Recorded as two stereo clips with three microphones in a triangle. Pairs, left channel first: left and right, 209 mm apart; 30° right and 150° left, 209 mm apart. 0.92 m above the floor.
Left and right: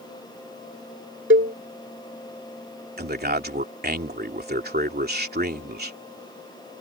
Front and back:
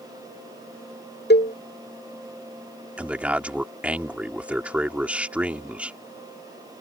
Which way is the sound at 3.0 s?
125° right.